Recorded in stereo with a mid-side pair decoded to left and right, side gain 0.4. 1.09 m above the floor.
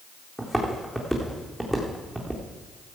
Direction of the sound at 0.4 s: 10° right.